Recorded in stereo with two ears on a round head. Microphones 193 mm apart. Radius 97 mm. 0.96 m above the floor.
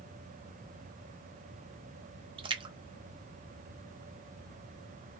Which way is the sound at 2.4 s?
25° right (ahead or behind).